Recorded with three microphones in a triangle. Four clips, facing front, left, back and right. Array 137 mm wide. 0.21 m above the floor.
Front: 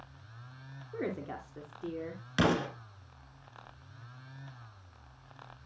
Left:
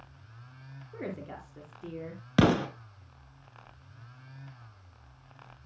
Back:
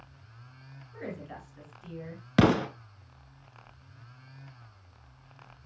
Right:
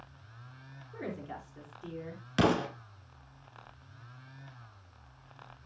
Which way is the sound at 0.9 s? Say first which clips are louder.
Left 1 dB, front 4 dB; 20° left.